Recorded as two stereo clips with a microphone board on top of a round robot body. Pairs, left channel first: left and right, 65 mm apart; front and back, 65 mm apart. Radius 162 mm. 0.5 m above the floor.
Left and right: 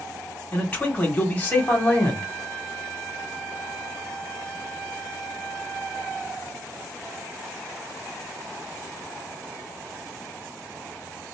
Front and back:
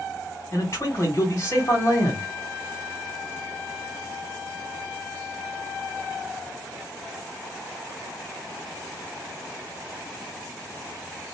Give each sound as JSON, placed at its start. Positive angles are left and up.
{"t": 0.5, "sound": "a man speaking", "azimuth_deg": 40, "distance_m": 1.8}